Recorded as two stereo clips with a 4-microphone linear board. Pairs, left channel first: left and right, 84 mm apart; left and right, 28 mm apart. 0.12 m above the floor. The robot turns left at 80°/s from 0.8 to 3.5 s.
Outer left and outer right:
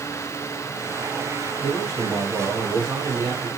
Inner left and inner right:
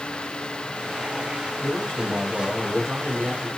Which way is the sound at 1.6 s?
65° left.